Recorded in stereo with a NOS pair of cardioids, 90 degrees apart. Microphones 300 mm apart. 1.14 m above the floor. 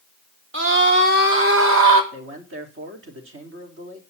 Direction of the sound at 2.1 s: 40° right.